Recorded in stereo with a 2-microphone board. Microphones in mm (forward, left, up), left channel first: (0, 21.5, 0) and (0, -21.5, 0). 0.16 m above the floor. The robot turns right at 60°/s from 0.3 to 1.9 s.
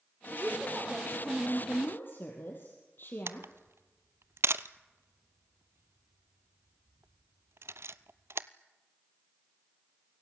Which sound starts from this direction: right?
A camera shutter, at 3.3 s.